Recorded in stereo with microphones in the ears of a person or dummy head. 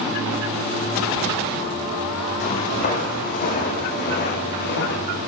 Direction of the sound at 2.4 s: 40° left (ahead or behind).